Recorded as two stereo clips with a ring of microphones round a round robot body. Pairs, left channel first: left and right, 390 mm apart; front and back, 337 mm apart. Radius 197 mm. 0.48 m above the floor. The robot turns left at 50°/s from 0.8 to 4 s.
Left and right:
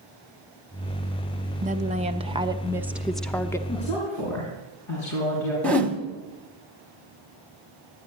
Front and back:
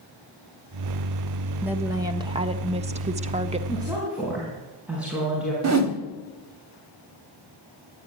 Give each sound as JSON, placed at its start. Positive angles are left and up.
{"t": 1.6, "sound": "a woman speaking", "azimuth_deg": -105, "distance_m": 0.7}
{"t": 3.7, "sound": "a woman speaking", "azimuth_deg": 110, "distance_m": 5.5}
{"t": 5.6, "sound": "a whoosh", "azimuth_deg": 175, "distance_m": 1.5}